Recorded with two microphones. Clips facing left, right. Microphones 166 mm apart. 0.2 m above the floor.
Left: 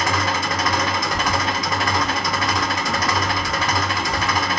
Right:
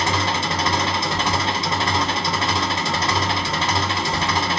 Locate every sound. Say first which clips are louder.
0.0 s an engine running: even; 30° right (ahead or behind), 0.7 m
1.1 s keys jangling: even; 35° left (ahead or behind), 0.8 m